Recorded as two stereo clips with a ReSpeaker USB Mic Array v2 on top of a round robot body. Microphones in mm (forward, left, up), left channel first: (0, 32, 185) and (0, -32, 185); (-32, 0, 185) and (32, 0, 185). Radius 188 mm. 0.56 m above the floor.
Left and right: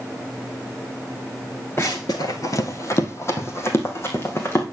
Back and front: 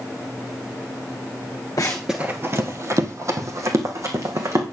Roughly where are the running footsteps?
Behind left.